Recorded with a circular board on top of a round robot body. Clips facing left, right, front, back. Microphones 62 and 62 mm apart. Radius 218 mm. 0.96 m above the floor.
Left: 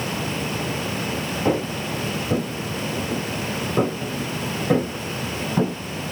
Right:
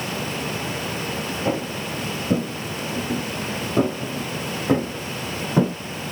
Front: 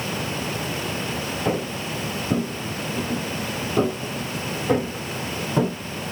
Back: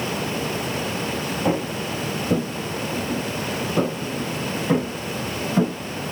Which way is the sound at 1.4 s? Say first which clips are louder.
Left 4 dB, back 2 dB; 170° left.